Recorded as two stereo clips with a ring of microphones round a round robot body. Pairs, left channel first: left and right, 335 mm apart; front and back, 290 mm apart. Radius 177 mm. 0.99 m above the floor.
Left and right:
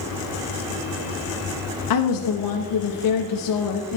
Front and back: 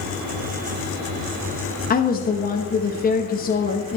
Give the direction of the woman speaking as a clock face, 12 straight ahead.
10 o'clock.